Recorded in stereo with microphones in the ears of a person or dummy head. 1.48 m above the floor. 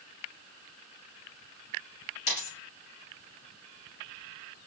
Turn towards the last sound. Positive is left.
turn(degrees=50)  # may be behind; listen again after turning